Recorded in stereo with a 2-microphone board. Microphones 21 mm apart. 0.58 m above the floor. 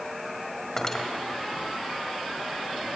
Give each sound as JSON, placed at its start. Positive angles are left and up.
{"t": 0.8, "sound": "cutlery clinking", "side_deg": 20, "distance_m": 1.8}